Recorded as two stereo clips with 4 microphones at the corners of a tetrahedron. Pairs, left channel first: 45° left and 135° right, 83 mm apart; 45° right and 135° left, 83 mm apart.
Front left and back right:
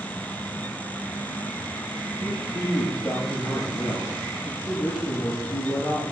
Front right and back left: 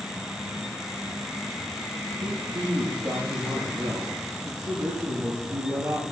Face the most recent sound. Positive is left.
turn(degrees=105)